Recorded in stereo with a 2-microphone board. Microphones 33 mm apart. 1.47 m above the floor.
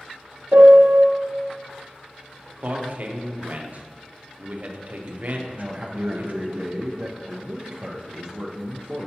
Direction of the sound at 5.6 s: 25° right (ahead or behind).